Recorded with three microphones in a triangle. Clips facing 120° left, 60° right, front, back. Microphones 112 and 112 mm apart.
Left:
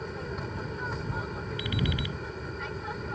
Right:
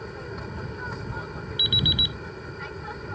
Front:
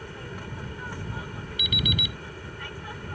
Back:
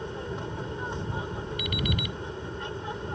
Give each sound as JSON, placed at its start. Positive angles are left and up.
{"t": 0.0, "sound": "an aircraft", "azimuth_deg": -150}
{"t": 1.6, "sound": "an alarm clock", "azimuth_deg": -135}